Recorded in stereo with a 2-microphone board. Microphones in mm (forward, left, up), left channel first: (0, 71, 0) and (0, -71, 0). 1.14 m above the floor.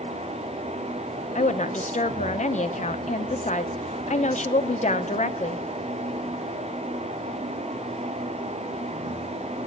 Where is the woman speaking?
55° left (ahead or behind), 0.7 m.